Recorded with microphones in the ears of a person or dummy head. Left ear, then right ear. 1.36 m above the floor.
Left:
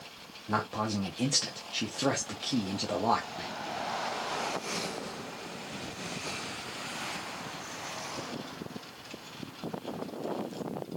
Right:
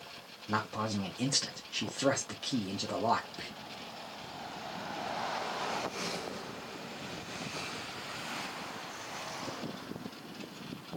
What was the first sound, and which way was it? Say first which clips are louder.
A man speaking: left 2 dB; centre (ahead or behind).